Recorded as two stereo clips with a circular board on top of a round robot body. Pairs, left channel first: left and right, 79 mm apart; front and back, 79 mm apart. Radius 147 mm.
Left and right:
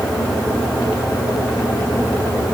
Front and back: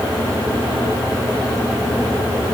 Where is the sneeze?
I don't hear a sneeze.